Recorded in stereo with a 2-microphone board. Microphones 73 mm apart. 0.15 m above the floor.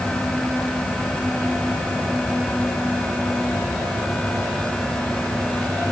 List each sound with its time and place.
Only background noise.